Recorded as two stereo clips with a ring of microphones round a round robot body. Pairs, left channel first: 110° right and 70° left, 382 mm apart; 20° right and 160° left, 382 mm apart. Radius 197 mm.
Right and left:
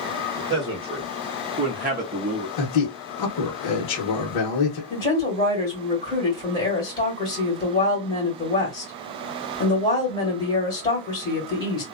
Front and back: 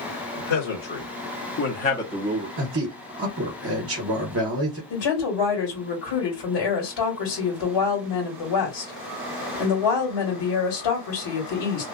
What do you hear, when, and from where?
0.4 s a man speaking: 5° right, 1.7 m; by 2.5 s 120° left, 0.8 m
2.6 s a man speaking: 145° right, 0.8 m
4.9 s a woman speaking: 40° right, 1.8 m